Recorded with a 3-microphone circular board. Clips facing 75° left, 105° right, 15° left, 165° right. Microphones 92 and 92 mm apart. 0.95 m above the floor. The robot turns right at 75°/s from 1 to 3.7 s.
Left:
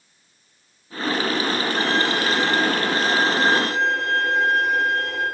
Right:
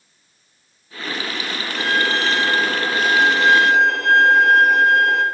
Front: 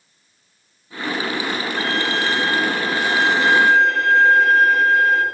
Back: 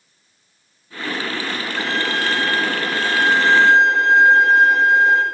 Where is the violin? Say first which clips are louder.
Right 5 dB, back 1 dB; 120° left, 7 m; by 5.2 s 95° right, 7 m.